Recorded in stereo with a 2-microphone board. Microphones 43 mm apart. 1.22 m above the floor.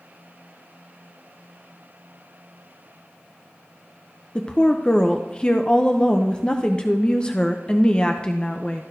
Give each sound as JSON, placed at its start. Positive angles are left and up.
{"t": 4.3, "sound": "a woman speaking", "side_deg": 25, "distance_m": 0.6}